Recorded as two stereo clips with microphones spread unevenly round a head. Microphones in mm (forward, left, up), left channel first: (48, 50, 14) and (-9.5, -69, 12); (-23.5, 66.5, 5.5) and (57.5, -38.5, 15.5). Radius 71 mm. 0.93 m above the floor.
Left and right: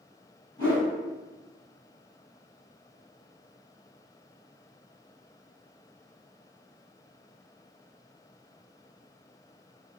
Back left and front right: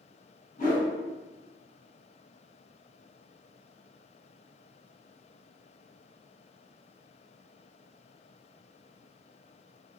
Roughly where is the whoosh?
Behind left.